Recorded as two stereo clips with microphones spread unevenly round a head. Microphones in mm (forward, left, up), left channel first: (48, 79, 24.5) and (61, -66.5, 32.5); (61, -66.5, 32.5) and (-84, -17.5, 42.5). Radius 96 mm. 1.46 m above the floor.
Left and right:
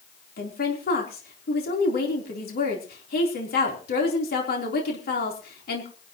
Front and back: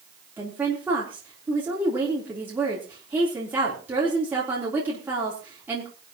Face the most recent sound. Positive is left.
turn(degrees=80)